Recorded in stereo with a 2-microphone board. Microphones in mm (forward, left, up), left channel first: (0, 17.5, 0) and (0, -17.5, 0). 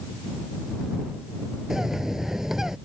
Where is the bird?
10° right (ahead or behind).